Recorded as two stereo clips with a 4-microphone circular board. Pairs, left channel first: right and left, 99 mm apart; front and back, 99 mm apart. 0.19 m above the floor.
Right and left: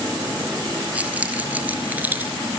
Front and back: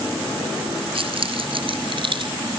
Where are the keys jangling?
165° left, 3 m; by 2.3 s 160° left, 2 m.